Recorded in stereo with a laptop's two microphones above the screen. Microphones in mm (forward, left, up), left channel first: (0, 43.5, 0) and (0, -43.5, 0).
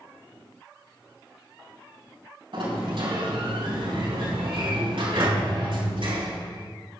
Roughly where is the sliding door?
Right.